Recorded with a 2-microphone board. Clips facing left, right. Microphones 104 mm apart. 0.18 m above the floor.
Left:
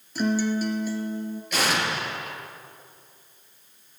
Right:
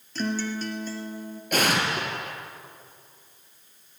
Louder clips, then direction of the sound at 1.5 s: Right 2 dB; 50° right (ahead or behind).